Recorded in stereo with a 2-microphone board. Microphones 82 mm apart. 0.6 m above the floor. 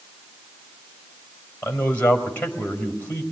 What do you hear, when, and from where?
1.6 s a man speaking: 20° left (ahead or behind), 3.5 m